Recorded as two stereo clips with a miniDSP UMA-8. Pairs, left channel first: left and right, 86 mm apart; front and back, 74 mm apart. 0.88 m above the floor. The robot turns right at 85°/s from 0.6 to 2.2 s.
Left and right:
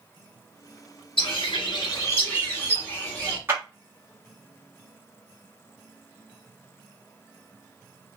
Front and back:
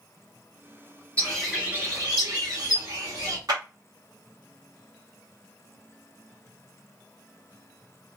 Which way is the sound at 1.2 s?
70° left.